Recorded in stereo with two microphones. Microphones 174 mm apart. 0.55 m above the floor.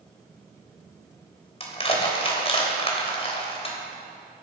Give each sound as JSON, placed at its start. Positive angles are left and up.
{"t": 1.6, "sound": "crushing", "side_deg": 35, "distance_m": 3.0}